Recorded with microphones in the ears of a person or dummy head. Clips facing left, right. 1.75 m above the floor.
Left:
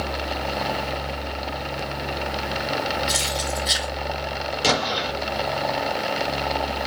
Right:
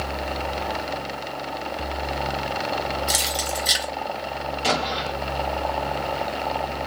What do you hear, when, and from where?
3.1 s keys jangling: 15° right (ahead or behind), 1.2 m
4.6 s an explosion: 65° left (ahead or behind), 1.9 m